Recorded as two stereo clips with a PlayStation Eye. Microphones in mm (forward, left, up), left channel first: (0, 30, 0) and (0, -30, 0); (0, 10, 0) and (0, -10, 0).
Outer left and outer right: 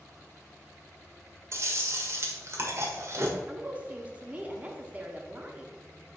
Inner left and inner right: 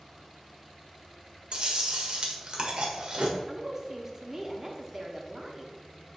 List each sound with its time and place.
1.5 s chewing: 50° right (ahead or behind), 1.6 m
3.4 s a woman speaking: 20° right (ahead or behind), 1.0 m